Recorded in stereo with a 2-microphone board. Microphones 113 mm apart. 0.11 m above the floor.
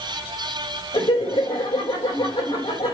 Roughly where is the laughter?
Left.